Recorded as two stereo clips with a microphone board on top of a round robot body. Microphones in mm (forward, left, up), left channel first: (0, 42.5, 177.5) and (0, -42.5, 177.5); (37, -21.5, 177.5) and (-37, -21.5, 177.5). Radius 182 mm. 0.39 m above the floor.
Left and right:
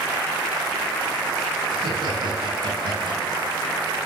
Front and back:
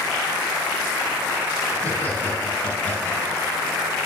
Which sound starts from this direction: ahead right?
Laughter, at 1.7 s.